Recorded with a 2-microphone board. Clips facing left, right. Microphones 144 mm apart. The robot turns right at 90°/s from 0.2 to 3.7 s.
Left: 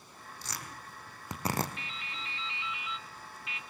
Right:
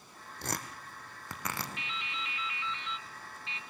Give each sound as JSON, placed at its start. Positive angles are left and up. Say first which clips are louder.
{"t": 0.4, "sound": "tearing paper", "louder": "right 6 dB", "side_deg": -60, "distance_m": 2.5}
{"t": 1.8, "sound": "dripping", "louder": "right 3 dB", "azimuth_deg": 70, "distance_m": 0.8}